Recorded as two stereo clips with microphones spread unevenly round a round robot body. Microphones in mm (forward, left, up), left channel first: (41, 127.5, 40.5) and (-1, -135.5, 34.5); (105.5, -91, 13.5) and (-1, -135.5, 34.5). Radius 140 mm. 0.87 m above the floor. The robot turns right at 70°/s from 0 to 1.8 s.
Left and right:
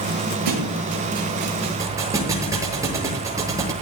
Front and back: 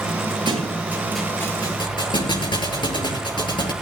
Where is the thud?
115° right, 7 m; by 3.7 s 20° right, 7 m.